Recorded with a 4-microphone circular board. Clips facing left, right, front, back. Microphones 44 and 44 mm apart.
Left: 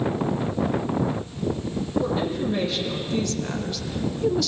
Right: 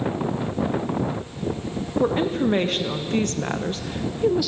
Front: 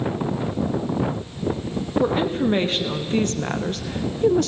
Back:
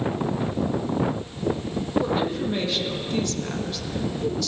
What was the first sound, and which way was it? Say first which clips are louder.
A woman speaking: right 8 dB, front 4 dB; 50° right.